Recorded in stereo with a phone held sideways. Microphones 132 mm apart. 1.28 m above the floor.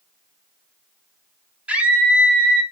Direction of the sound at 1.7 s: 10° right (ahead or behind).